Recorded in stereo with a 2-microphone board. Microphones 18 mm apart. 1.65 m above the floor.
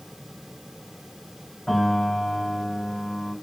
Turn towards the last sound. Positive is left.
turn(degrees=55)  # may be behind; listen again after turning